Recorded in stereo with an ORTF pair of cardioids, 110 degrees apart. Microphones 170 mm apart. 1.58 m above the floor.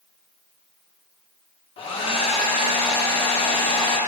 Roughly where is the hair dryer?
Ahead left.